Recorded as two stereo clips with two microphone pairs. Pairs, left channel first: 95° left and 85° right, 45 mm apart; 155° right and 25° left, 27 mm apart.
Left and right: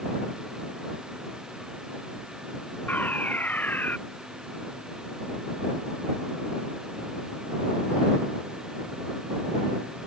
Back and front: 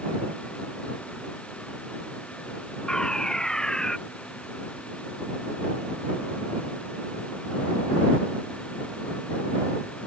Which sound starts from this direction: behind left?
A fire alarm, at 2.9 s.